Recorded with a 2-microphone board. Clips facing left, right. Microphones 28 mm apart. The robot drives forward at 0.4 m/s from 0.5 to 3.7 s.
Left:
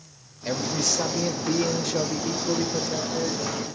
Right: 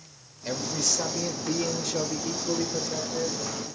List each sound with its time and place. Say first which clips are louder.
0.5 s a man speaking: left 3 dB; 10° left (ahead or behind), 0.9 m